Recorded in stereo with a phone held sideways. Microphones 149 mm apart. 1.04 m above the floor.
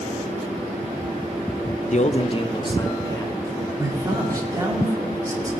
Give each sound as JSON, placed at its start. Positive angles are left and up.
{"t": 1.9, "sound": "a man speaking", "side_deg": 50, "distance_m": 0.6}
{"t": 3.8, "sound": "a man speaking", "side_deg": -20, "distance_m": 2.0}